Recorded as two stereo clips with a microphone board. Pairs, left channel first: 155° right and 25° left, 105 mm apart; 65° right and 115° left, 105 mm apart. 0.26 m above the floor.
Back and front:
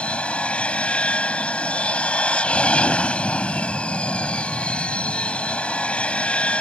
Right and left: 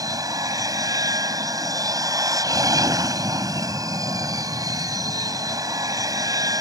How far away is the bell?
No bell in this recording.